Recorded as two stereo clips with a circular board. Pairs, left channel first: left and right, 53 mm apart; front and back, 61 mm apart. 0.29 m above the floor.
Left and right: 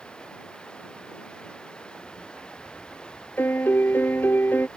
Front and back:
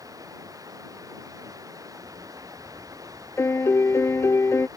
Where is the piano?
45° left.